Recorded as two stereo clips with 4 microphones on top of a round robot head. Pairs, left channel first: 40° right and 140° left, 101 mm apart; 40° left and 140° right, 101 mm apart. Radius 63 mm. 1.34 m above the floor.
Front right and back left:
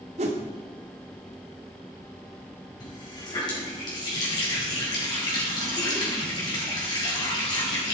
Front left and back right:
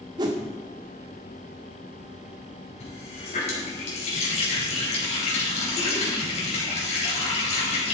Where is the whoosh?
165° left, 1.9 m.